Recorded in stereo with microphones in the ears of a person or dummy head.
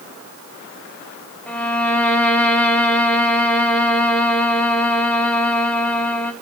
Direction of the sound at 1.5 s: 5° left (ahead or behind).